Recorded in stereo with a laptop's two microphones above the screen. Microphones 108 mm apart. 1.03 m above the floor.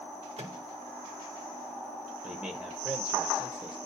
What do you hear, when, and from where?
0.4 s a microwave: 75° right (ahead or behind), 1.6 m
2.2 s a man speaking: 20° right (ahead or behind), 0.7 m